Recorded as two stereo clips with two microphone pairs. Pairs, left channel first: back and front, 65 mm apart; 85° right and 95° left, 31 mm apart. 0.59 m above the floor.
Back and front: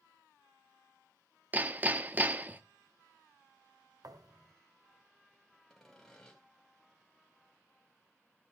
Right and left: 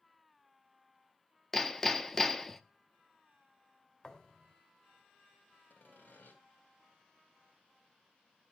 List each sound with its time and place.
1.5 s hammering: 15° right, 0.7 m
4.0 s a thud: 20° right, 1.2 m
5.7 s sawing: 95° right, 3 m